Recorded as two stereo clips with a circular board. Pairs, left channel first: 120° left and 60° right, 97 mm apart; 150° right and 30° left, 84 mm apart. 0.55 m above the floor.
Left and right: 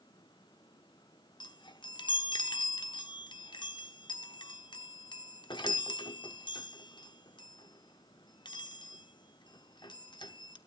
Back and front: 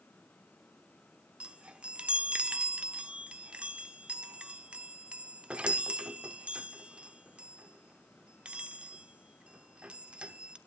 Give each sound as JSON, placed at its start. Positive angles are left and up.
{"t": 1.4, "sound": "a chime", "azimuth_deg": 105, "distance_m": 1.0}